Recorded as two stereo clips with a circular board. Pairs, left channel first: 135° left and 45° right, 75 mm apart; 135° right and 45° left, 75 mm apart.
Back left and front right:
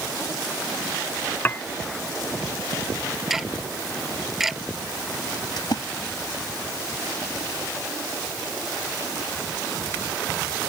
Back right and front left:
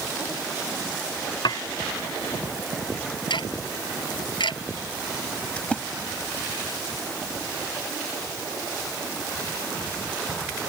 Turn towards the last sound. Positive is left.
turn(degrees=150)